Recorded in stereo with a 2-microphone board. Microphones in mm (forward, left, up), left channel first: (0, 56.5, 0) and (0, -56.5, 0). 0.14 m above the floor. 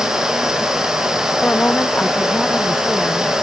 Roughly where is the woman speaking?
Centre.